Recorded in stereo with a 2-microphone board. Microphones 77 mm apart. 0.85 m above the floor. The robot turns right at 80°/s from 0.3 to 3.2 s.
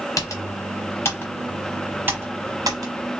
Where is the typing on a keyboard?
45° left (ahead or behind), 0.9 m; by 2.9 s 45° right (ahead or behind), 0.9 m.